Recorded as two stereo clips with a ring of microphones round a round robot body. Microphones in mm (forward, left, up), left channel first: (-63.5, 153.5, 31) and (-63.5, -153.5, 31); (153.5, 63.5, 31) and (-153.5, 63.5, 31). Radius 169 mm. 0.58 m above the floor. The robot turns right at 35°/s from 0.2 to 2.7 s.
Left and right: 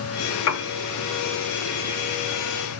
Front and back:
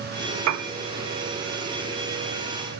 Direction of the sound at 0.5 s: 135° left.